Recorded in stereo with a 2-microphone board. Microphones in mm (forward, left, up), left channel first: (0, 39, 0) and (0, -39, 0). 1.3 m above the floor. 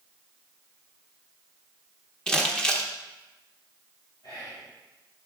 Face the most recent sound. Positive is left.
turn(degrees=70)  # may be behind; listen again after turning